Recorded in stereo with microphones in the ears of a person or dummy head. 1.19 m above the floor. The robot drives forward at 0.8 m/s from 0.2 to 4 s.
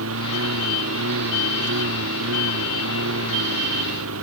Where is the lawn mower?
90° right; by 4.2 s 85° right.